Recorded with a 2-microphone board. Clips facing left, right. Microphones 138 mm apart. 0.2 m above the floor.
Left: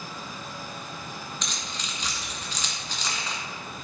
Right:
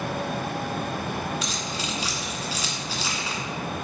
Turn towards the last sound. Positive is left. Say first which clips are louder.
# right 7 dB
turn(degrees=-5)  # may be behind; listen again after turning